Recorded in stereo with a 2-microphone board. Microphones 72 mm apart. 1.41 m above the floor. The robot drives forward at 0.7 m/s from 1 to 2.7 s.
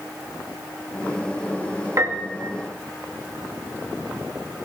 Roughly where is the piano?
Right.